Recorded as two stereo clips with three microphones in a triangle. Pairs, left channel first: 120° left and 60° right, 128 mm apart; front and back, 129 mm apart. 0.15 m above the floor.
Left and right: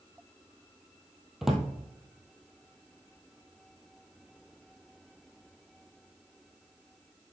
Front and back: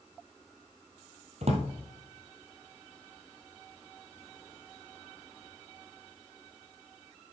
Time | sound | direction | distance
1.4 | a drawer | 150° right | 1.7 m